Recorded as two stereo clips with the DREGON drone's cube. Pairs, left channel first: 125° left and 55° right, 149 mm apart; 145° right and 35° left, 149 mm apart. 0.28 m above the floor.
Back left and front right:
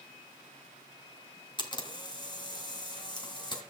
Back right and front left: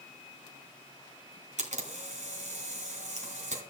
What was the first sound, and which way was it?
A camera shutter, 65° left.